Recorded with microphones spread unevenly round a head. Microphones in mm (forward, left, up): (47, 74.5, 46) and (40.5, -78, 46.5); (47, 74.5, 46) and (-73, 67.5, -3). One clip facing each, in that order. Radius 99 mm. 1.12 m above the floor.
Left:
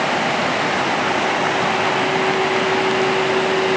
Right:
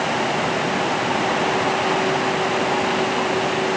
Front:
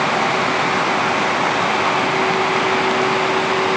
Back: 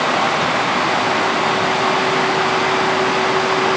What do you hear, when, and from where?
Only background noise.